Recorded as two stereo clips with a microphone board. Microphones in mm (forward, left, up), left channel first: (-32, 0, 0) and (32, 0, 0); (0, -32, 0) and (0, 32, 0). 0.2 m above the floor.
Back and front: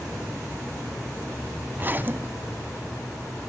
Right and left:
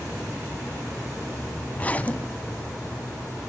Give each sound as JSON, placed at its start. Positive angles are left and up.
{"t": 1.7, "sound": "a zipper", "azimuth_deg": -40, "distance_m": 0.5}